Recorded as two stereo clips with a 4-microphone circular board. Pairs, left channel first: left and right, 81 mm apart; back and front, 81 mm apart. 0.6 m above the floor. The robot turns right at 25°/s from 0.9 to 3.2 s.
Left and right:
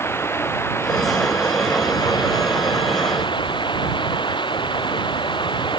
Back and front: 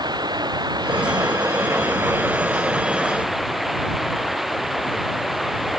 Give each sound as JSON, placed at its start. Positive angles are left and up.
{"t": 0.0, "sound": "running water", "azimuth_deg": 30}